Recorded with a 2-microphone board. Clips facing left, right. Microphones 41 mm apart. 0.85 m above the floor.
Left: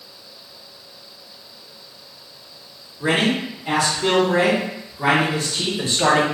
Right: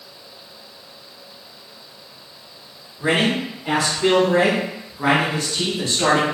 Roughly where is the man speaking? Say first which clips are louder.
Even; right.